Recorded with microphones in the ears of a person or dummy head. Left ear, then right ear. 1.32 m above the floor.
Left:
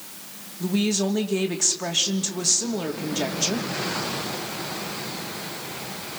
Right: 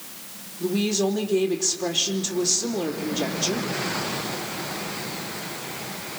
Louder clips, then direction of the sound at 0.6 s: Right 1 dB; 60° left (ahead or behind).